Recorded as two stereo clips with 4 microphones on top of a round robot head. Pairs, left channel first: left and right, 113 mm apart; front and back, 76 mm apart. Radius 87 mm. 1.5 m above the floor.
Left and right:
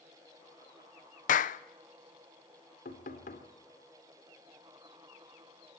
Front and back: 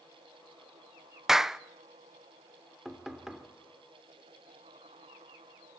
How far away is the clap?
About 0.8 m.